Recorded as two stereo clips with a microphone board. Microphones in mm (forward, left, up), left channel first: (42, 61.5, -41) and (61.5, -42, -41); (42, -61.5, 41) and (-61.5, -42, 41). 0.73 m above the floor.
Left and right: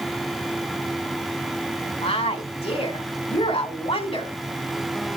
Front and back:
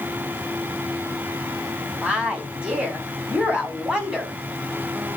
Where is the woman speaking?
90° left, 3 m.